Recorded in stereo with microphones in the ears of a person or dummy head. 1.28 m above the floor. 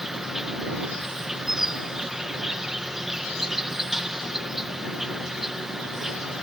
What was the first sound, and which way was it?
An insect, centre (ahead or behind).